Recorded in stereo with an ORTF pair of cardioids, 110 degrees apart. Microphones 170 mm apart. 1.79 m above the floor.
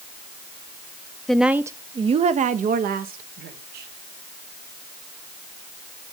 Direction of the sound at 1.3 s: 5° left.